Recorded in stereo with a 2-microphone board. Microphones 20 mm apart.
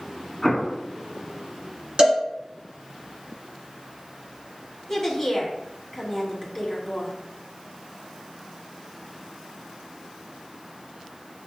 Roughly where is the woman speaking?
Centre.